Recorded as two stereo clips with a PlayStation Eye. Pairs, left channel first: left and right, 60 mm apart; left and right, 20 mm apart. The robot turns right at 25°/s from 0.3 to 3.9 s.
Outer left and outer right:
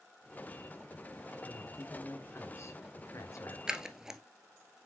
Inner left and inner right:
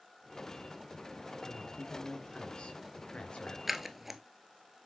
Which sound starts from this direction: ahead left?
A man speaking, at 1.4 s.